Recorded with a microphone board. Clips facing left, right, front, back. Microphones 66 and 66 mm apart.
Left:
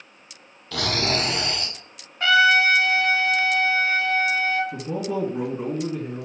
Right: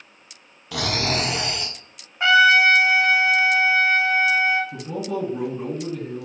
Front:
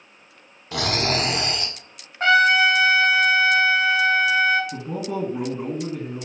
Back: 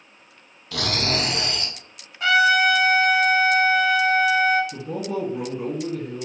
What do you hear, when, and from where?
0.7 s snoring: 25° right, 0.8 m
2.2 s a trumpet: 30° right, 0.7 m
4.7 s a man speaking: 20° left, 1.5 m